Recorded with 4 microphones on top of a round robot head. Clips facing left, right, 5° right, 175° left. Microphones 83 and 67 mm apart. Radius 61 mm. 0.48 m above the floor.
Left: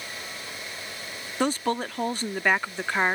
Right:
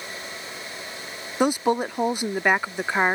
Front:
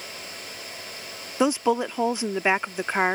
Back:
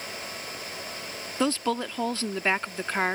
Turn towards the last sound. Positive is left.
turn(degrees=-40)